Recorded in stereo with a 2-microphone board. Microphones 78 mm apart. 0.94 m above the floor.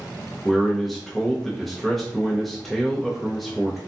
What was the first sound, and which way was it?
A man speaking, centre (ahead or behind).